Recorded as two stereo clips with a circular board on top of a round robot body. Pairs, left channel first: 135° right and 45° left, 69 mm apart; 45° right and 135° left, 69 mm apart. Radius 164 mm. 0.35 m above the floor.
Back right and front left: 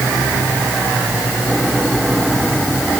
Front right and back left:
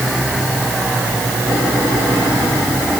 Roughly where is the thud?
No thud in this recording.